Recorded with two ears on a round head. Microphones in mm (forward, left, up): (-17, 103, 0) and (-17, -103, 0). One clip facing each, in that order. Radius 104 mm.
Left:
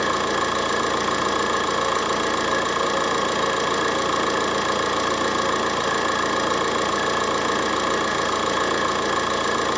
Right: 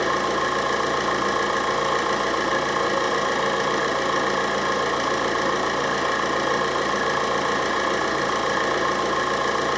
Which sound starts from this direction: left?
An engine running, at 0.0 s.